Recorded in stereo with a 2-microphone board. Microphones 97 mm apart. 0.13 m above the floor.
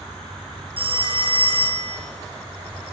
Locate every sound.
0.8 s a phone ringing: 60° right (ahead or behind), 1.9 m